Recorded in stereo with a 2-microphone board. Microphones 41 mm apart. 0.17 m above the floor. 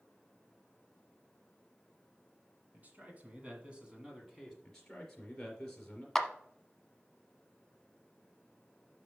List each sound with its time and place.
2.7 s a man speaking: 40° right (ahead or behind), 1.8 m; by 4.5 s 5° right (ahead or behind), 1.5 m
4.6 s a man speaking: 15° left (ahead or behind), 3 m
6.2 s a clap: 5° left (ahead or behind), 0.8 m